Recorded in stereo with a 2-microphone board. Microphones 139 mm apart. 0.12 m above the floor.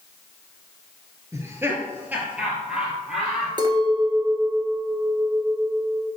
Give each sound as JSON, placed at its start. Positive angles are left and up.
{"t": 1.3, "sound": "laughter", "side_deg": -20, "distance_m": 1.7}
{"t": 3.6, "sound": "a clink", "side_deg": -35, "distance_m": 1.3}